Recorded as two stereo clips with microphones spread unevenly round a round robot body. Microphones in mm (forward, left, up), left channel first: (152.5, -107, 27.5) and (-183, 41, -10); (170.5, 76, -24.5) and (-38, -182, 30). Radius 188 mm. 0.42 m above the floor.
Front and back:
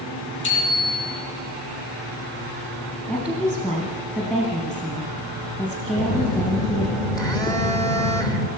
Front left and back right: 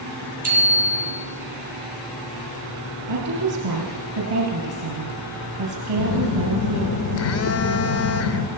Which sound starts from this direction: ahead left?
A phone buzzing, at 6.0 s.